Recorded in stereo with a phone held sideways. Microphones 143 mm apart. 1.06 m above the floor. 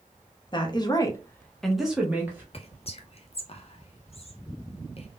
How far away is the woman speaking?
About 0.7 m.